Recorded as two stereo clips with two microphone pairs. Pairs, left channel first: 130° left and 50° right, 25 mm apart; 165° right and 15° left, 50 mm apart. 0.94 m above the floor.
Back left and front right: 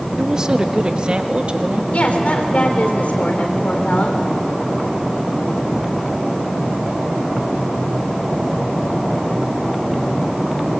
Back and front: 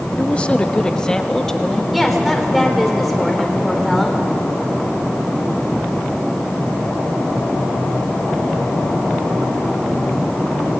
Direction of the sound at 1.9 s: 105° left.